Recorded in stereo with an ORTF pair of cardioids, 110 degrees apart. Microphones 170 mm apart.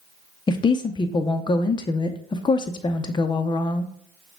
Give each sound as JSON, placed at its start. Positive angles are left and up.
{"t": 0.5, "sound": "a woman speaking", "azimuth_deg": 25, "distance_m": 0.7}